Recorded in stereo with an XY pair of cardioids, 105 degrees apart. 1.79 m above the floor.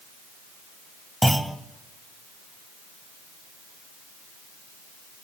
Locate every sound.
1.2 s a clunk: 10° right, 1.1 m